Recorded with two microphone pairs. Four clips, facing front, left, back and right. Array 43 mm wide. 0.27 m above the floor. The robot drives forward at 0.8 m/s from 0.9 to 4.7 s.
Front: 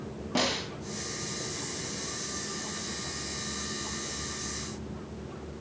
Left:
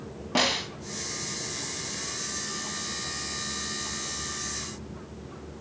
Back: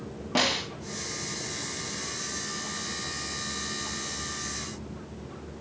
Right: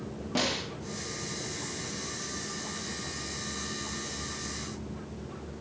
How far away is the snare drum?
About 2.5 m.